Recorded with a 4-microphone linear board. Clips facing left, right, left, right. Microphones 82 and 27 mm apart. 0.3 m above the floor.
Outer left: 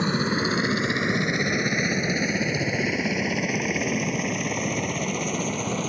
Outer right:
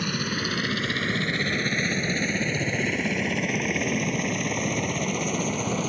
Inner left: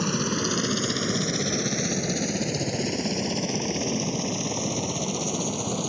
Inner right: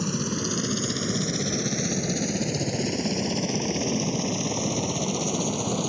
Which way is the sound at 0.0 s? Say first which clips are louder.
Outer left 5 dB, inner left 2 dB; 25° left (ahead or behind).